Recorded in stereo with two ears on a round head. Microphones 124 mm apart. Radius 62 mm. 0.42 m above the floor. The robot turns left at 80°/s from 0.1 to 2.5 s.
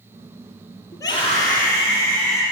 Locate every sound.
0.9 s a scream: 165° left, 9.5 m; by 2.4 s 40° left, 9.5 m